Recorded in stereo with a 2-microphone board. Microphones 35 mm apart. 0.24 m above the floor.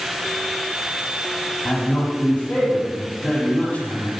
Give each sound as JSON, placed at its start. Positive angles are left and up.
{"t": 1.6, "sound": "a man speaking", "side_deg": 50, "distance_m": 6.0}